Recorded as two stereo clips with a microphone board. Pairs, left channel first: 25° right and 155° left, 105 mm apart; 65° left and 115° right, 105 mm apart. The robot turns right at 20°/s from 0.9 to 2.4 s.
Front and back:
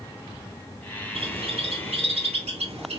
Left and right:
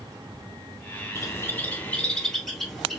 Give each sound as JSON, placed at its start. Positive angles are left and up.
{"t": 1.1, "sound": "a bird", "azimuth_deg": 130, "distance_m": 0.9}